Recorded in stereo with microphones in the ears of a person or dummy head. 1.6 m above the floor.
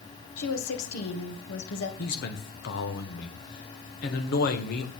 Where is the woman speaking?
85° left, 2 m.